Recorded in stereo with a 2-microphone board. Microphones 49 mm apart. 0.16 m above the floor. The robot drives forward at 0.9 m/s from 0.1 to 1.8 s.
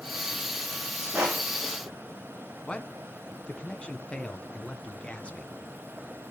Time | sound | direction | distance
1.1 | crushing | 20° right (ahead or behind) | 9.5 m
2.6 | a man speaking | 25° left (ahead or behind) | 1.6 m